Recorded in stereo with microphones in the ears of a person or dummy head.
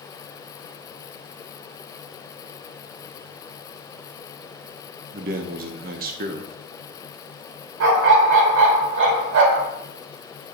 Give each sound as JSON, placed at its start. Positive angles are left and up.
{"t": 5.1, "sound": "a man speaking", "side_deg": -45, "distance_m": 0.7}
{"t": 7.8, "sound": "a dog barking", "side_deg": -65, "distance_m": 1.7}